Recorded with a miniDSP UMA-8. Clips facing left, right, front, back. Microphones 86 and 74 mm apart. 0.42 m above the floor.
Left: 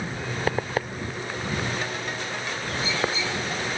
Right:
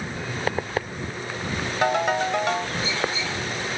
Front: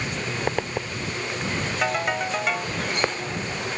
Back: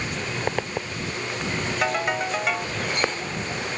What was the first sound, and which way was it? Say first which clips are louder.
A ringtone: right 10 dB, even; 90° right.